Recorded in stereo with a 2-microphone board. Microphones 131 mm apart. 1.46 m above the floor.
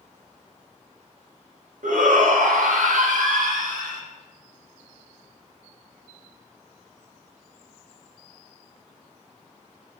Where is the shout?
85° right, 2.5 m; by 4.0 s 80° right, 4 m.